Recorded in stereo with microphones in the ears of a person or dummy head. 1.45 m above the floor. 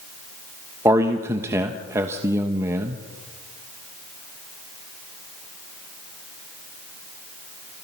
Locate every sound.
0.8 s a man speaking: 15° right (ahead or behind), 1.2 m